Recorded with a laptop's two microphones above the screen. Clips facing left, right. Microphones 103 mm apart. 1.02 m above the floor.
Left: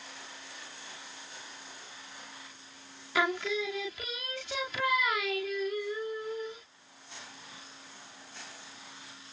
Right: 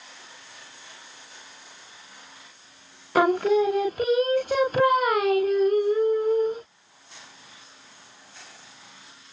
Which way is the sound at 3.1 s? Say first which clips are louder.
Right 11 dB; 45° right (ahead or behind).